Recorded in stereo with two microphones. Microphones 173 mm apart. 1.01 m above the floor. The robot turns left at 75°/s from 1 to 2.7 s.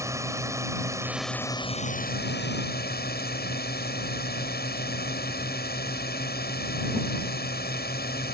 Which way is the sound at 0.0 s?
165° right.